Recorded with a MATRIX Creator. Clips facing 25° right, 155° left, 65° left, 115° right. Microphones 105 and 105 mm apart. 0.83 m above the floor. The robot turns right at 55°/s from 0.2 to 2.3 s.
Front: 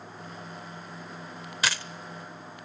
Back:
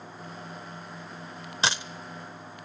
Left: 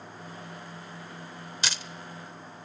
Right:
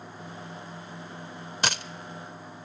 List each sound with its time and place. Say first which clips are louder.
1.6 s a dropped coin: back 2 dB, right 6 dB; 145° right, 0.8 m; by 1.8 s 130° right, 0.8 m